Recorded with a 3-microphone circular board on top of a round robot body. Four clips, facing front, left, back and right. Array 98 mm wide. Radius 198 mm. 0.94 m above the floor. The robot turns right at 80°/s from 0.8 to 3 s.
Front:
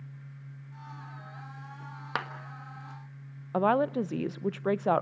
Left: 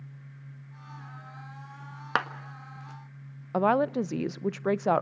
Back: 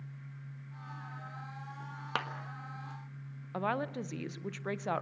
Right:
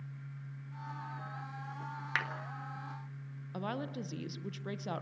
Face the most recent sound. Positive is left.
turn(degrees=45)